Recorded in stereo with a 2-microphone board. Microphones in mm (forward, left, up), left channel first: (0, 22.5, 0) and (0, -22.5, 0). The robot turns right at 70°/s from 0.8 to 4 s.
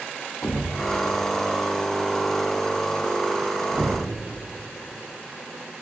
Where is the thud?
60° left (ahead or behind), 4.5 m; by 4.0 s 60° right (ahead or behind), 4.5 m.